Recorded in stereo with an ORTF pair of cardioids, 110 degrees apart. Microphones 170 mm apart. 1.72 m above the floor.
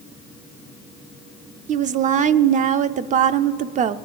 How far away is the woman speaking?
About 0.5 m.